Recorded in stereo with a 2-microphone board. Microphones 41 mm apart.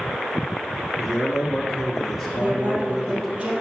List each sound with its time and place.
1.0 s a man speaking: centre (ahead or behind), 2.5 m
2.4 s a woman speaking: 25° right (ahead or behind), 3 m